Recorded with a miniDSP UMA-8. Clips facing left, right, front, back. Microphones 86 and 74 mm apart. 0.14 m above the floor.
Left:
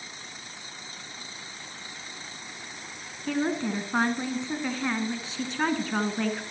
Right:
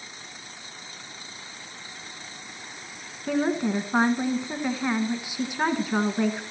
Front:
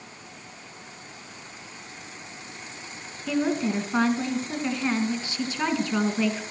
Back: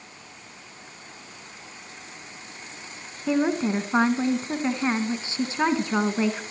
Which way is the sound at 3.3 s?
155° right.